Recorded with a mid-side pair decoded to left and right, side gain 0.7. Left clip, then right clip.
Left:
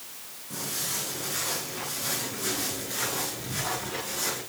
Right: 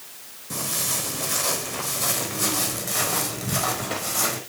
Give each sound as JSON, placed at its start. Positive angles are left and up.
{"t": 0.5, "sound": "footsteps", "azimuth_deg": -45, "distance_m": 5.5}